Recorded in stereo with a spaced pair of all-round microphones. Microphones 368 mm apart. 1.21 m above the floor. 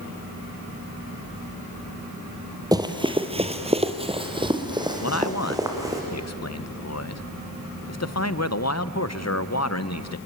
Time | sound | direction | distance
2.7 | running footsteps | 10° right (ahead or behind) | 1.5 m
5.0 | a man speaking | 45° left (ahead or behind) | 0.7 m